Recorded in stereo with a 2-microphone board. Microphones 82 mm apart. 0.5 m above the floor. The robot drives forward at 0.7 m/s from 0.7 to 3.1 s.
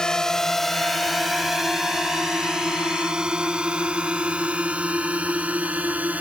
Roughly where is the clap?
No clap in this recording.